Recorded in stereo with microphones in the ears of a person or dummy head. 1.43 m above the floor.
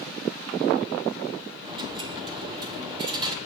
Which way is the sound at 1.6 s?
25° right (ahead or behind).